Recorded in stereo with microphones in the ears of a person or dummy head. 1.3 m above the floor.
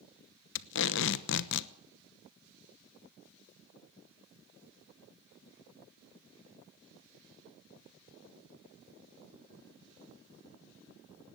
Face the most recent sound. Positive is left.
turn(degrees=65)  # may be behind; listen again after turning